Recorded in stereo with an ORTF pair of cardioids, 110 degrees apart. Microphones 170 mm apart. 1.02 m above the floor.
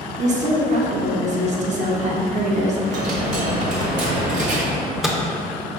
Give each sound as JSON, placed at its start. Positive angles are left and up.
{"t": 0.2, "sound": "a woman speaking", "azimuth_deg": -45, "distance_m": 0.9}
{"t": 2.9, "sound": "a dropped coin", "azimuth_deg": -50, "distance_m": 1.2}
{"t": 4.7, "sound": "a microwave", "azimuth_deg": 0, "distance_m": 0.6}